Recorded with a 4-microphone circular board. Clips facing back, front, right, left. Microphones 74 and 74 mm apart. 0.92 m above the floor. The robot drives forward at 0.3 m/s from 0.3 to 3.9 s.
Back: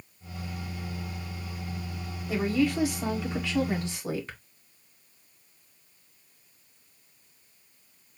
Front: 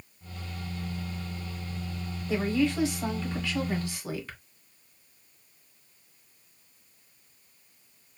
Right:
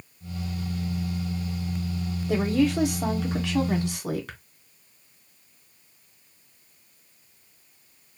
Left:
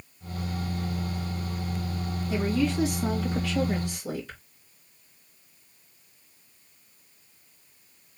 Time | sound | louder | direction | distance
2.3 | a woman speaking | back 1 dB, right 4 dB | 95° right | 1.8 m